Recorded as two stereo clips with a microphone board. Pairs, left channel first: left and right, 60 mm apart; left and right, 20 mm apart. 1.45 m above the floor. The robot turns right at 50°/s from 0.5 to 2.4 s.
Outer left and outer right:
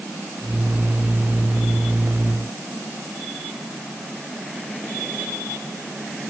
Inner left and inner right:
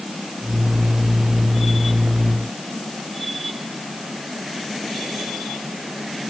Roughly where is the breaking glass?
I don't hear breaking glass.